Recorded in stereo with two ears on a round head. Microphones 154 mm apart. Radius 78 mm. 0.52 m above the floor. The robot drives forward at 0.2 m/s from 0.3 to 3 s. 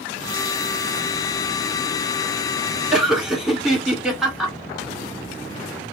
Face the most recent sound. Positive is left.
turn(degrees=-5)  # may be behind; listen again after turning